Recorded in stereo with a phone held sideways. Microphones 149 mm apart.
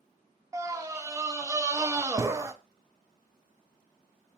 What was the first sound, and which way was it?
A scream, 20° right (ahead or behind).